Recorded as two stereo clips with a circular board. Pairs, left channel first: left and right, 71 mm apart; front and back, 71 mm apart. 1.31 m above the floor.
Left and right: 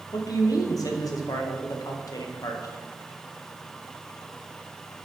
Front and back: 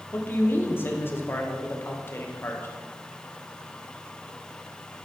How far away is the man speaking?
About 0.9 m.